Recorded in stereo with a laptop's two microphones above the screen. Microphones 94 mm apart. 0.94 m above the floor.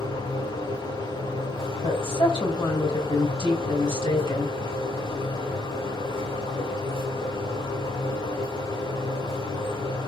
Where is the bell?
No bell in this recording.